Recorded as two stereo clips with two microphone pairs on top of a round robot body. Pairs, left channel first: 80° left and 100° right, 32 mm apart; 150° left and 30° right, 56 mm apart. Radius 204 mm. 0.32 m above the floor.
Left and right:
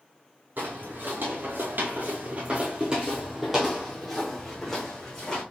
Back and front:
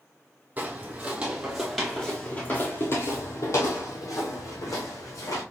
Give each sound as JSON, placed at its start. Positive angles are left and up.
{"t": 0.6, "sound": "footsteps", "azimuth_deg": -85, "distance_m": 1.1}